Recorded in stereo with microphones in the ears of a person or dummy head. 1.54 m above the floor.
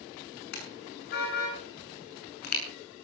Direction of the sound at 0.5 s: 55° left (ahead or behind).